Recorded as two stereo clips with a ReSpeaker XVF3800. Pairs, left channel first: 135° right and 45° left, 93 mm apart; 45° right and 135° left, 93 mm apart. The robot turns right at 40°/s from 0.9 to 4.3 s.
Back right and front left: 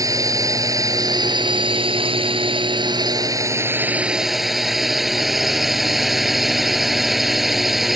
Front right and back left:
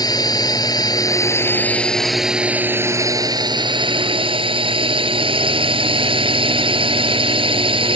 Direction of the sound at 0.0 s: 5° right.